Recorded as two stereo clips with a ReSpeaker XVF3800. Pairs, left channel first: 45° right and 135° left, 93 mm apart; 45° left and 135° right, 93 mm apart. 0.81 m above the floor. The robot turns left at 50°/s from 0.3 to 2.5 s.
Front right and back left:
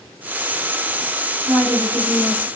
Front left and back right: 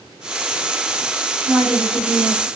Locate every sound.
1.4 s a woman speaking: 140° left, 2.5 m; by 2.5 s 90° left, 2.5 m